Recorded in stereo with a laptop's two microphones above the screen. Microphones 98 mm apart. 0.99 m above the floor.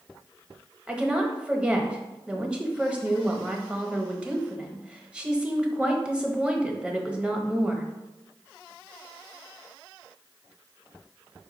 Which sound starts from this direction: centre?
A woman speaking, at 0.9 s.